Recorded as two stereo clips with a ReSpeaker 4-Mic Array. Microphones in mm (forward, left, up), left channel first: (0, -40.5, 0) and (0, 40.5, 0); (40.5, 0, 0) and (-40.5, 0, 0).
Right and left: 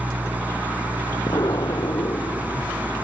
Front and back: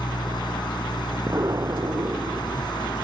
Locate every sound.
0.0 s an engine running: 20° left
1.3 s an explosion: 130° right